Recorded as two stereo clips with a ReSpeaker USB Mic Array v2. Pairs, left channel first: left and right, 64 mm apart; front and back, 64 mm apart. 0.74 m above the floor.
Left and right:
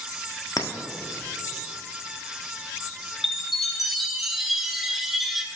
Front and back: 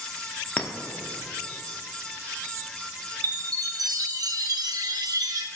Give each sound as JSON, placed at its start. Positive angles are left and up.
{"t": 0.6, "sound": "a clink", "azimuth_deg": 70, "distance_m": 0.6}
{"t": 3.2, "sound": "a chime", "azimuth_deg": 180, "distance_m": 0.6}